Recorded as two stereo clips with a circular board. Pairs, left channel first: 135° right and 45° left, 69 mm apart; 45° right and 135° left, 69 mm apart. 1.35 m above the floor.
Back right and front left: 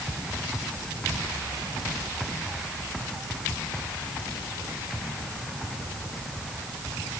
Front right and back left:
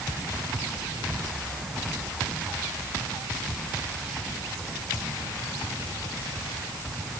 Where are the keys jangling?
No keys jangling in this recording.